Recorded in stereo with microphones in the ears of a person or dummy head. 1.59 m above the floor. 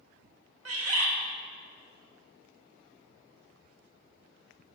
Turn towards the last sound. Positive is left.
turn(degrees=-80)